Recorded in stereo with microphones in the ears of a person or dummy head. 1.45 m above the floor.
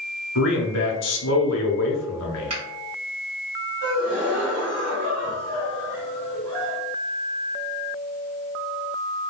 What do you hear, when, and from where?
0.3 s a man speaking: 70° left (ahead or behind), 0.7 m
2.5 s a finger snap: 30° right (ahead or behind), 1.2 m
3.8 s a gasp: 5° left (ahead or behind), 1.5 m